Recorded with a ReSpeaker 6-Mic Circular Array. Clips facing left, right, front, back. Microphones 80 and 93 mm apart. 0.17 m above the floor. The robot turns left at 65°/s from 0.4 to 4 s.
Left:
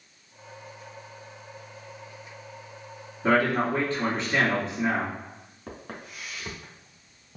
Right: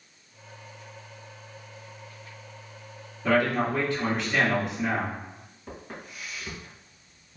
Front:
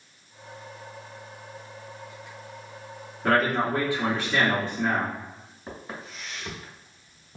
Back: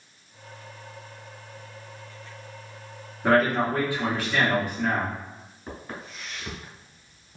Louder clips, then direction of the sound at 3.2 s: Left 1 dB, back 2 dB; 105° left.